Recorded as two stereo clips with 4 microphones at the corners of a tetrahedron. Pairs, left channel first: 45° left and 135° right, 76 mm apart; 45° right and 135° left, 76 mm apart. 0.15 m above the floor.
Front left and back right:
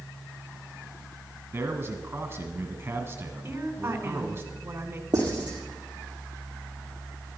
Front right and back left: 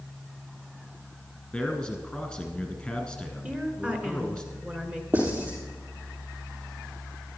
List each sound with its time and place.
1.5 s a man speaking: 115° right, 1.2 m
3.4 s a woman speaking: 165° right, 1.5 m
5.1 s writing: 165° right, 6 m